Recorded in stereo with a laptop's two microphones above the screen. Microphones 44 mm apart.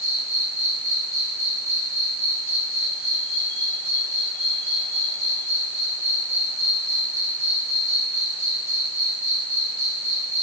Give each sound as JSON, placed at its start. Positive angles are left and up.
{"t": 0.0, "sound": "an insect", "side_deg": 70, "distance_m": 8.5}